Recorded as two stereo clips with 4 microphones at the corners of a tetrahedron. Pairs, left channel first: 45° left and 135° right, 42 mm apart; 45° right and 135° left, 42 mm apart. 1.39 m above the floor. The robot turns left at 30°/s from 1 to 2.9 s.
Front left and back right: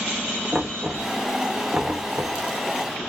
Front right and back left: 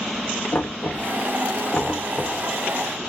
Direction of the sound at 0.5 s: 65° right.